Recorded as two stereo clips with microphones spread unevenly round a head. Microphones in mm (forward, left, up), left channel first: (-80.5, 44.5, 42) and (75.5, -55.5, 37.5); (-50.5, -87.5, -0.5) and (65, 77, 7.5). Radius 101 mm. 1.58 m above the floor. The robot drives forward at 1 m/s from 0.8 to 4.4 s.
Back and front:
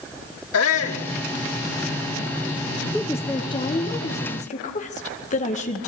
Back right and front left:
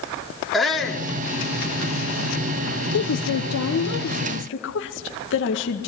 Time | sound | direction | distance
0.5 | a shout | 145° left | 3 m
2.9 | a woman speaking | 125° right | 0.9 m